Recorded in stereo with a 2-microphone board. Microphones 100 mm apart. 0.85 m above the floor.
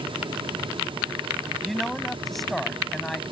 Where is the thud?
No thud in this recording.